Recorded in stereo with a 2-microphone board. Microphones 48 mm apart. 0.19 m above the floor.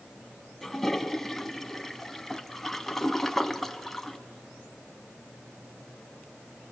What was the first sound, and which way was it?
A toilet flushing, 10° left (ahead or behind).